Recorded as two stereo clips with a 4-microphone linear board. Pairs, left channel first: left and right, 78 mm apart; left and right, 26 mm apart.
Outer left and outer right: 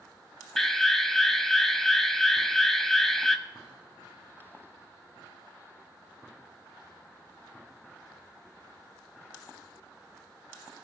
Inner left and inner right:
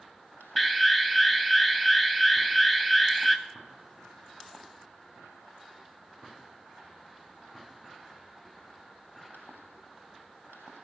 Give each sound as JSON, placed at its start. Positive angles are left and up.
{"t": 0.6, "sound": "an alarm", "side_deg": 5, "distance_m": 0.7}